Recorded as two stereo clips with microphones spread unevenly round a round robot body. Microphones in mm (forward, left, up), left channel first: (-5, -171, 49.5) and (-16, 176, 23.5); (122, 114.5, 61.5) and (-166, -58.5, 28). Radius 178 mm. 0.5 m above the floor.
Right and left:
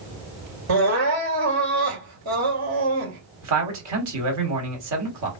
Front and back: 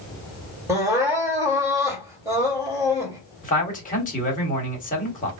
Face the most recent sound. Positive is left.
turn(degrees=95)